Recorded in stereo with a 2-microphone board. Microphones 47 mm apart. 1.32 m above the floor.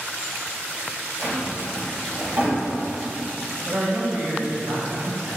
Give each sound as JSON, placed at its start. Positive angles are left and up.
{"t": 1.2, "sound": "a drawer", "side_deg": -55, "distance_m": 1.4}
{"t": 3.6, "sound": "a man speaking", "side_deg": -65, "distance_m": 1.2}